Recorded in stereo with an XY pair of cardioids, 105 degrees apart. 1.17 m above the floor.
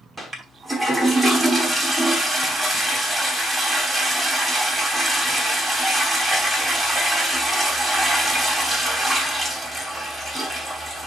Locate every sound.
0.2 s a toilet flushing: 20° right, 3 m